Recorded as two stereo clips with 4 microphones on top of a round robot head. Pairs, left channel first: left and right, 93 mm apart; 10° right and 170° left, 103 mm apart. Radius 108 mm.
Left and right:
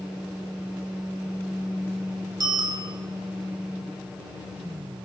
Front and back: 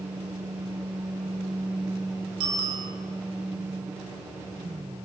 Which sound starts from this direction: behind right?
A bicycle bell, at 2.4 s.